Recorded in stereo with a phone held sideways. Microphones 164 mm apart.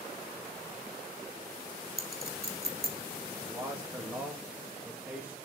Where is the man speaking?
10° right (ahead or behind), 1.4 m.